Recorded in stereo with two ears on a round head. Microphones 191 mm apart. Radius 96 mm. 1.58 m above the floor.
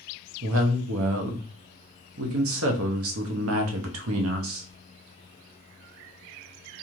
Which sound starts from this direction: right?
A woman speaking, at 0.4 s.